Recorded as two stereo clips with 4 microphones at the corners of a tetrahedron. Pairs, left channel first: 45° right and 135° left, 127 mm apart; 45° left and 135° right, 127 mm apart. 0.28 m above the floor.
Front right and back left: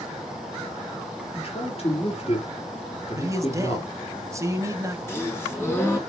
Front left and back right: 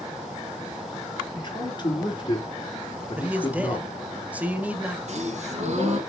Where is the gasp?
115° right, 3 m.